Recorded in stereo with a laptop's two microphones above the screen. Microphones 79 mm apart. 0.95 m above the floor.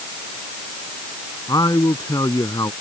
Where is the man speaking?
50° left (ahead or behind).